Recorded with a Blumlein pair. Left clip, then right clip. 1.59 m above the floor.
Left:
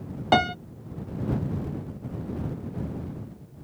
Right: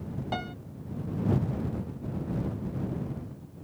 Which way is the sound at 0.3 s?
35° left.